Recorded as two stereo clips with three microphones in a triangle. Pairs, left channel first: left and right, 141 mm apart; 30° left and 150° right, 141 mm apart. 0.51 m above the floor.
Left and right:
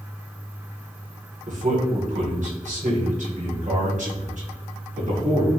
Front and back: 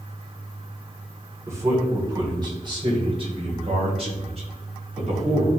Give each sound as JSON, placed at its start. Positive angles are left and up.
{"t": 1.5, "sound": "a man speaking", "azimuth_deg": -85, "distance_m": 1.9}